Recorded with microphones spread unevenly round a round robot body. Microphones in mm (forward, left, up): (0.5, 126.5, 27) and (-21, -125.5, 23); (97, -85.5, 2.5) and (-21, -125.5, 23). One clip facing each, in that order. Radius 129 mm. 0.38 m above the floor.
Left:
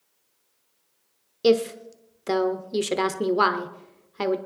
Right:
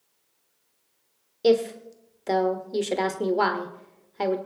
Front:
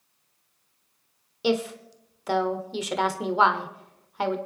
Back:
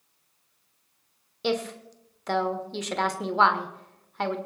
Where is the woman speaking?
45° left, 1.1 m.